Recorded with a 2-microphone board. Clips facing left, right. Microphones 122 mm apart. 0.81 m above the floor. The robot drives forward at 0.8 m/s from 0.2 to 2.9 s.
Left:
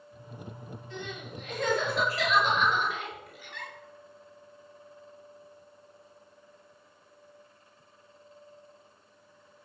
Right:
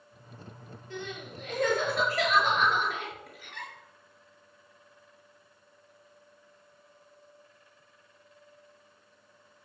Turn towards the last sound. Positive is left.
turn(degrees=-50)  # may be behind; listen again after turning